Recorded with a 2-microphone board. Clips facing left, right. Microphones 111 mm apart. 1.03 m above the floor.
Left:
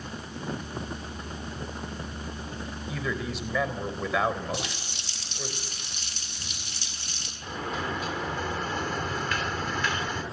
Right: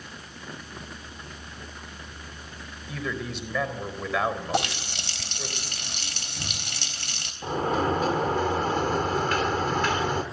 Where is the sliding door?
45° right (ahead or behind), 2.5 m.